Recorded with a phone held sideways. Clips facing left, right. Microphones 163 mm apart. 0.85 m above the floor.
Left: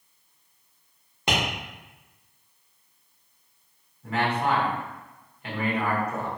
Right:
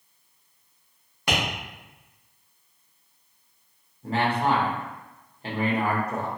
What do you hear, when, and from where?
1.3 s tapping: 25° left (ahead or behind), 1.1 m
4.0 s a man speaking: 30° right (ahead or behind), 1.0 m